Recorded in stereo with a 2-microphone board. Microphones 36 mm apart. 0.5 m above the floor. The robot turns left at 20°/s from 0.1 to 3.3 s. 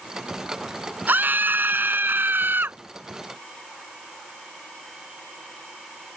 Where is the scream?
65° right; by 2.8 s 100° right.